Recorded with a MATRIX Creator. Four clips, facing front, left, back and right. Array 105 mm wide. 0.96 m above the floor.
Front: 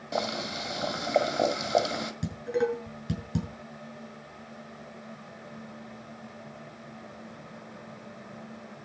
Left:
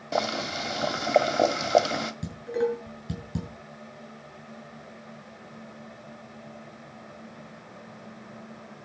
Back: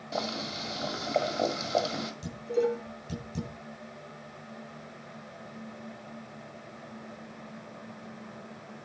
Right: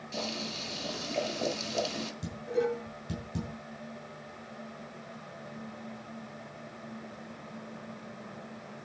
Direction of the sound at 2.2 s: 25° left.